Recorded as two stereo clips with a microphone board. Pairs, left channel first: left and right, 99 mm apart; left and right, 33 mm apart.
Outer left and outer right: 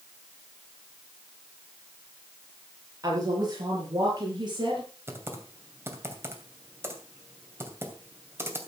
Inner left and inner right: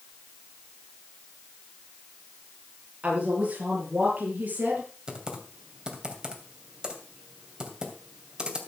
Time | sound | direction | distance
3.0 | a woman speaking | 35° right (ahead or behind) | 7 m
5.1 | typing on a keyboard | 25° right (ahead or behind) | 2.5 m